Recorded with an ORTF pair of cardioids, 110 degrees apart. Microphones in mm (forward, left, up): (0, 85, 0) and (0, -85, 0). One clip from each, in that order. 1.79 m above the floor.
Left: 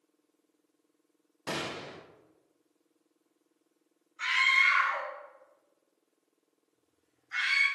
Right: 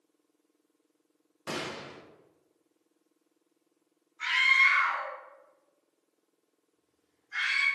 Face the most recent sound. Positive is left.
turn(degrees=70)